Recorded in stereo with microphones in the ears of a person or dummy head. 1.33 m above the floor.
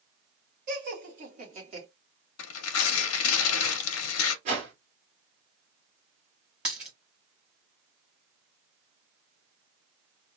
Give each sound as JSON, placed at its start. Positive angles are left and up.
{"t": 0.7, "sound": "laughter", "side_deg": -55, "distance_m": 2.0}
{"t": 2.4, "sound": "tearing paper", "side_deg": 80, "distance_m": 0.7}
{"t": 4.5, "sound": "a whoosh", "side_deg": -40, "distance_m": 2.0}
{"t": 6.7, "sound": "a dropped coin", "side_deg": -5, "distance_m": 1.5}